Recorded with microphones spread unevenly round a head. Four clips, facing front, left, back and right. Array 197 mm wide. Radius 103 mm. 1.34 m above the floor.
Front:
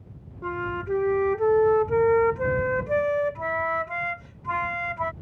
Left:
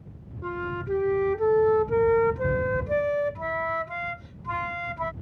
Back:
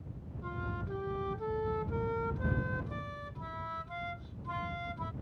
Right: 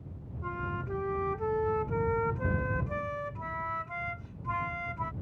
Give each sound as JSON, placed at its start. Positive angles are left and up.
{"t": 0.4, "sound": "a flute", "azimuth_deg": 40}